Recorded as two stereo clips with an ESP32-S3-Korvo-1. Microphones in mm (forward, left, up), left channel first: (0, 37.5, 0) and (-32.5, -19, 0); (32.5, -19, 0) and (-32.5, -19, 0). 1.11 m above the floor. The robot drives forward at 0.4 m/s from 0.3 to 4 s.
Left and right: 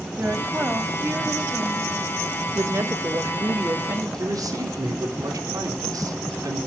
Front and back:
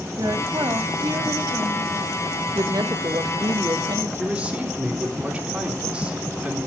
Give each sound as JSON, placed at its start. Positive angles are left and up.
{"t": 0.2, "sound": "a woman speaking", "azimuth_deg": -175, "distance_m": 2.5}
{"t": 2.5, "sound": "a woman speaking", "azimuth_deg": -165, "distance_m": 1.1}
{"t": 4.2, "sound": "a man speaking", "azimuth_deg": -110, "distance_m": 3.5}